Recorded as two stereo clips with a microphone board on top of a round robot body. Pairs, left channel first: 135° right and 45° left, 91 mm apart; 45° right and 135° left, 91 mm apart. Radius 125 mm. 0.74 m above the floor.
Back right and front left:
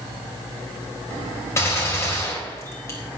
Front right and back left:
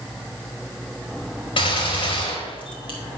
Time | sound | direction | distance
1.6 | a gunshot | 75° right | 5 m